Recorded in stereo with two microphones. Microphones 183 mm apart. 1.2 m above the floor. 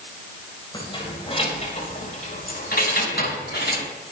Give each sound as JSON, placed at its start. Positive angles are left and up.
{"t": 0.7, "sound": "keys jangling", "side_deg": 25, "distance_m": 4.5}